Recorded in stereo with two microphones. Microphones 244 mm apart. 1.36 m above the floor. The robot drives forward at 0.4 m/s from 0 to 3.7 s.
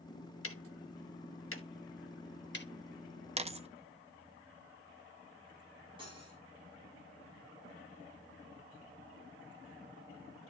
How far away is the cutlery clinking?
About 6.5 m.